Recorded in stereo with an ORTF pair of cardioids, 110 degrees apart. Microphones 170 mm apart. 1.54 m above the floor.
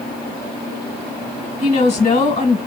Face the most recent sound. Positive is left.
turn(degrees=40)